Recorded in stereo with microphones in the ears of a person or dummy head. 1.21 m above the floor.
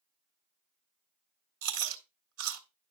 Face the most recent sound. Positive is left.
turn(degrees=-75)  # may be behind; listen again after turning